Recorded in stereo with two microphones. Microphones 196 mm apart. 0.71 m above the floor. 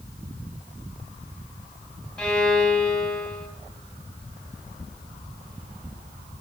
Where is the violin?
5° left (ahead or behind), 0.8 m.